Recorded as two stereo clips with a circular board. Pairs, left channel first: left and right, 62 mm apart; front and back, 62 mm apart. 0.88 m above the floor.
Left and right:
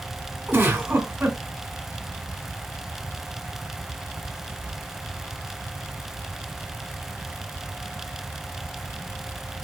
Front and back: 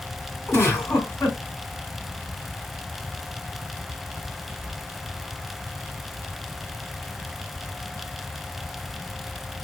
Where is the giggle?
40° right, 1.8 m.